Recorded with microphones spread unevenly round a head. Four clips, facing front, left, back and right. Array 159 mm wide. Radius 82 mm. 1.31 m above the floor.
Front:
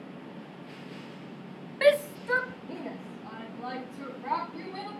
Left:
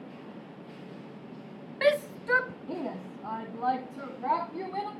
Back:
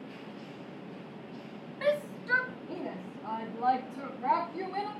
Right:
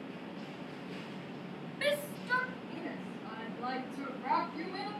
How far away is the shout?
About 0.6 m.